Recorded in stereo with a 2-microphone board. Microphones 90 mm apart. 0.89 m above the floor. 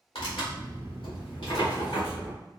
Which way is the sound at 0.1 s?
80° left.